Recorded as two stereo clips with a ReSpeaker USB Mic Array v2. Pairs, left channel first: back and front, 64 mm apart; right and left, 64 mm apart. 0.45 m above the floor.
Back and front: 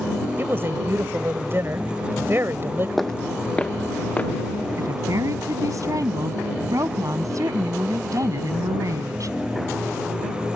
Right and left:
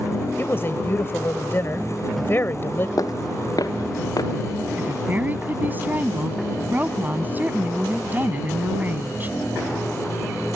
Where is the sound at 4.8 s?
30° left.